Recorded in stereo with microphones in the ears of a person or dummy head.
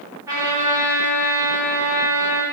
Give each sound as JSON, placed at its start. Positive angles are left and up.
{"t": 0.3, "sound": "a trumpet", "side_deg": -20, "distance_m": 1.9}